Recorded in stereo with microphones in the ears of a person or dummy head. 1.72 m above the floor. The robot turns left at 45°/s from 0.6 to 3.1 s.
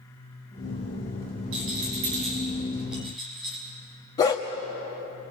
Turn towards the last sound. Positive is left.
turn(degrees=15)  # may be behind; listen again after turning